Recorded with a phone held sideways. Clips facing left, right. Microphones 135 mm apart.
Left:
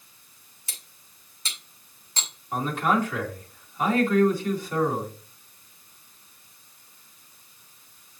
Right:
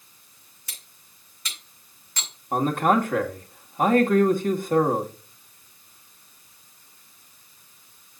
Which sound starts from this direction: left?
Cutlery clinking, at 0.7 s.